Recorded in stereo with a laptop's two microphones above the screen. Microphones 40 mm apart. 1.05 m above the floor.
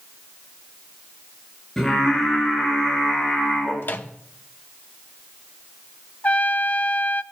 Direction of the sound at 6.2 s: 40° left (ahead or behind).